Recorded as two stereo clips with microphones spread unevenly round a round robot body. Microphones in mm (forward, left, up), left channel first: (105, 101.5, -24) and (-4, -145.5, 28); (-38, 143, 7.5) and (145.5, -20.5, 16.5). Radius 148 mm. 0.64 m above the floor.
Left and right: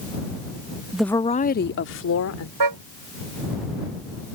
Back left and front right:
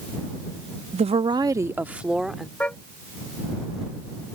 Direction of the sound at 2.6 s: 135° right.